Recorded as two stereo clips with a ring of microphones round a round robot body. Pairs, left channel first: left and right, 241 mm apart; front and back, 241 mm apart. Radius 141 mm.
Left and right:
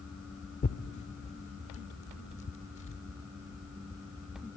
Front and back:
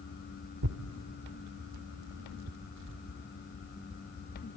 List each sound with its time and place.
0.6 s tearing paper: 155° left, 1.1 m